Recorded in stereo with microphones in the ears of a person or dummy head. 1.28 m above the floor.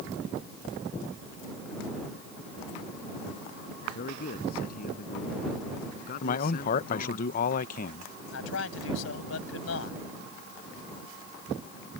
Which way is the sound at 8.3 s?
90° left.